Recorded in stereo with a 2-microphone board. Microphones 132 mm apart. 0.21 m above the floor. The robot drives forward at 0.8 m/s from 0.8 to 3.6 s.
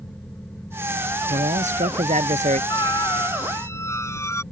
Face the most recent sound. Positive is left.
turn(degrees=20)  # may be behind; listen again after turning